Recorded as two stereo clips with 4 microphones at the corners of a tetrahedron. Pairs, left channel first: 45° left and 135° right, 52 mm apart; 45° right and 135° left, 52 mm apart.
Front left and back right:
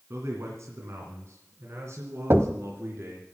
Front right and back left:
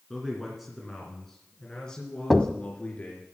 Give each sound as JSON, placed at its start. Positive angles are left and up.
{"t": 0.1, "sound": "a man speaking", "azimuth_deg": -140, "distance_m": 2.5}
{"t": 2.3, "sound": "knocking", "azimuth_deg": -130, "distance_m": 1.1}